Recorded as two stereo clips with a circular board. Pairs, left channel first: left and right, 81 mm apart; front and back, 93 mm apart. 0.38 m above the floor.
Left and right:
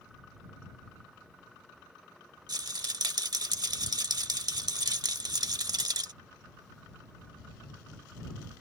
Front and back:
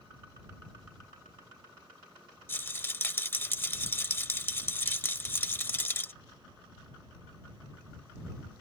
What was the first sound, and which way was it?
A rattle, 65° right.